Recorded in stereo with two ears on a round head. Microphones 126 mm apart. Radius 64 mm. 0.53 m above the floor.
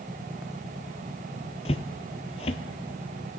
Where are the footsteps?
45° left (ahead or behind), 0.6 m.